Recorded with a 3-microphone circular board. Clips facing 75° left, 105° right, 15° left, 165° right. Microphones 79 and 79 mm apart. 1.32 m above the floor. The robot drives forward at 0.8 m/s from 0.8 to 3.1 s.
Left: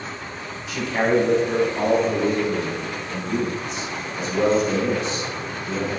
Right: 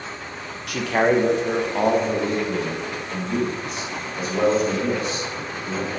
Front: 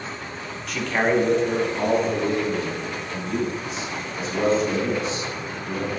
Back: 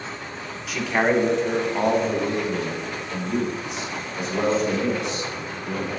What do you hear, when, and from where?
0.7 s a man speaking: 80° right, 1.0 m; by 5.9 s 150° right, 1.9 m